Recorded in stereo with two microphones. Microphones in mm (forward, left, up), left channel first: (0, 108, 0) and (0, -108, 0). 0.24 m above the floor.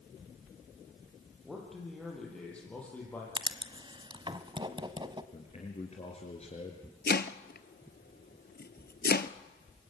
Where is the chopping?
50° left (ahead or behind), 0.8 m.